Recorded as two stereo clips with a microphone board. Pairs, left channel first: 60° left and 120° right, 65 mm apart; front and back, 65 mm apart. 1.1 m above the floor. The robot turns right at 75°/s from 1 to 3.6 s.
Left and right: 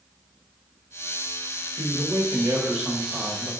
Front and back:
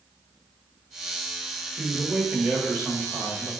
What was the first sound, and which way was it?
A man speaking, 130° right.